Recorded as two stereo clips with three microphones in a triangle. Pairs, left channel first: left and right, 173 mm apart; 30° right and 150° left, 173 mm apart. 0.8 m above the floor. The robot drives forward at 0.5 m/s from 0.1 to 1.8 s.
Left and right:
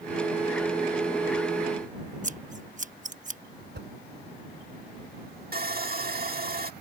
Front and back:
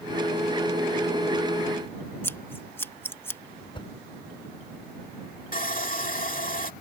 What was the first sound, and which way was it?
Scissors, 105° right.